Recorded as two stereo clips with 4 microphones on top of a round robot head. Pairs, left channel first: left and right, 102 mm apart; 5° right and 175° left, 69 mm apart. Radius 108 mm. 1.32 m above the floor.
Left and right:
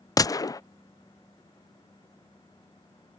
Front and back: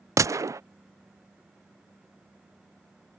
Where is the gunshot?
140° left.